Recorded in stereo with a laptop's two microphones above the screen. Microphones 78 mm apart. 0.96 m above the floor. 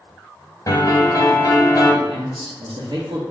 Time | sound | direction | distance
0.7 | a piano | 45° left (ahead or behind) | 1.2 m
2.0 | a man speaking | 65° right (ahead or behind) | 0.7 m